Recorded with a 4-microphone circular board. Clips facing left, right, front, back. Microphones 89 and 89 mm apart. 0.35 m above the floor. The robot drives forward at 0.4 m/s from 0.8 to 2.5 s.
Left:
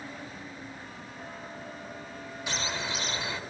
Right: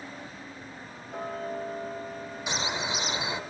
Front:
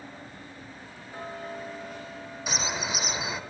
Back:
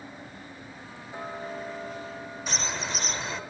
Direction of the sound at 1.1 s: 110° right.